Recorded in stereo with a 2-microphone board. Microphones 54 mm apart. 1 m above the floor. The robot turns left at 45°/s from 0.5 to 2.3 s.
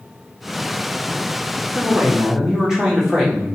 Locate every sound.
1.8 s a man speaking: 35° right (ahead or behind), 1.3 m; by 3.5 s 10° right (ahead or behind), 1.3 m